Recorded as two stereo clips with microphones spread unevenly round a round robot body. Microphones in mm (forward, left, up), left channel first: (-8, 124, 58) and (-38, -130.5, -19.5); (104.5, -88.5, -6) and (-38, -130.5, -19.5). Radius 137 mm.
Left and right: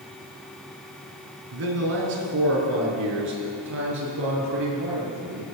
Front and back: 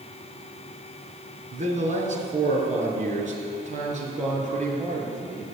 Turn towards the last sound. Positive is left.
turn(degrees=-130)